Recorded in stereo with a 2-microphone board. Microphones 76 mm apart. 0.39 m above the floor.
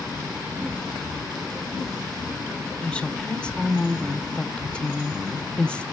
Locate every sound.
2.8 s a woman speaking: 15° left (ahead or behind), 1.0 m